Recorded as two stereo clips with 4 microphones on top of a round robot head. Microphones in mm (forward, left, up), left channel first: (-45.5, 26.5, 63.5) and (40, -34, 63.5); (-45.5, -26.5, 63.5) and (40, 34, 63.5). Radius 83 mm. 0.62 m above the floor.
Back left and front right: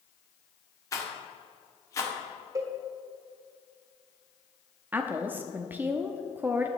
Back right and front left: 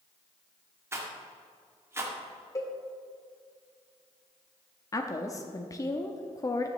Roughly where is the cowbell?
Right.